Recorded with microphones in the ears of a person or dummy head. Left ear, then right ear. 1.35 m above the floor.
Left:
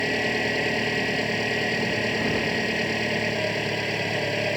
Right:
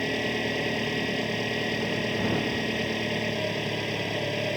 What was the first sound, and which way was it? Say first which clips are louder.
An engine running: left 4 dB; 30° left (ahead or behind).